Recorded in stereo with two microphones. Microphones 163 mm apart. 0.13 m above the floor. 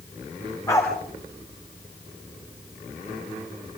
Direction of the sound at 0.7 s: 15° left (ahead or behind).